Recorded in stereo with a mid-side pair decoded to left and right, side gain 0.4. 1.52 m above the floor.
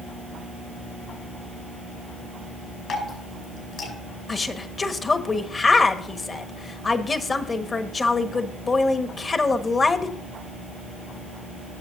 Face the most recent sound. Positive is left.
turn(degrees=40)